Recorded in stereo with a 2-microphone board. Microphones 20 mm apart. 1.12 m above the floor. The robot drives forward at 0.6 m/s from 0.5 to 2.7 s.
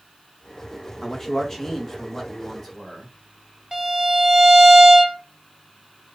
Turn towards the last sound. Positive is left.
turn(degrees=-25)  # may be behind; listen again after turning